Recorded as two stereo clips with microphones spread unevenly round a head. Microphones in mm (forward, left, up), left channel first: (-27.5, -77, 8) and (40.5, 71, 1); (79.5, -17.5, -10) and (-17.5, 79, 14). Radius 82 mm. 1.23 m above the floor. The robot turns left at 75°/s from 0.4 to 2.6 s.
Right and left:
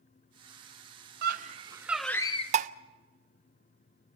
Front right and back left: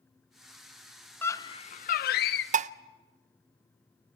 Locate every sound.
1.2 s a scream: 35° left, 0.5 m; by 2.4 s 60° right, 0.5 m
2.5 s dishes clattering: 115° left, 0.5 m; by 2.7 s 110° left, 0.5 m